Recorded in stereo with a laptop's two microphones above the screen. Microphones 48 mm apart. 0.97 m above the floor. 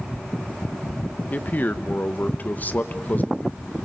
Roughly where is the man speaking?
Left.